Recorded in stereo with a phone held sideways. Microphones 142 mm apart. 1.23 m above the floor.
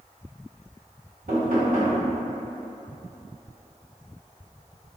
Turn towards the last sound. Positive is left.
turn(degrees=-80)